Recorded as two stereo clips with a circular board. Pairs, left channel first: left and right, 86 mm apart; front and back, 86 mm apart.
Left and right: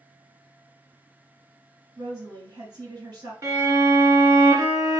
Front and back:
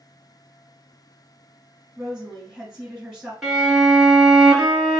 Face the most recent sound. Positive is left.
turn(degrees=-100)